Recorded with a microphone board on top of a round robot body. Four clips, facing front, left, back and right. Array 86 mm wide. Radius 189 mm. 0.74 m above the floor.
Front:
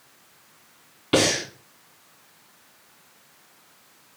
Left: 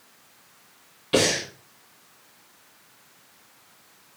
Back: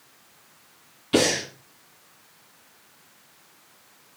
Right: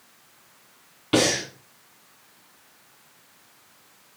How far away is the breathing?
About 2.5 m.